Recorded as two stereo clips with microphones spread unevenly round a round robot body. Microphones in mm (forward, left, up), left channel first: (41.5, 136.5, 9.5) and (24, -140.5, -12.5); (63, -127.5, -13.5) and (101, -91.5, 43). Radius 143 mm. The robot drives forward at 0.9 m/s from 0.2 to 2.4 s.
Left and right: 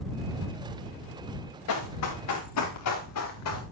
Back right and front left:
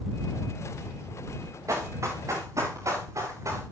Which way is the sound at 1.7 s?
55° left.